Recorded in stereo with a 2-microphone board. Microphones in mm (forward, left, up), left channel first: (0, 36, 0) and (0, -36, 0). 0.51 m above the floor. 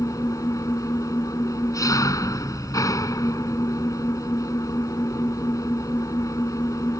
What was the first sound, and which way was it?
An engine running, 50° left (ahead or behind).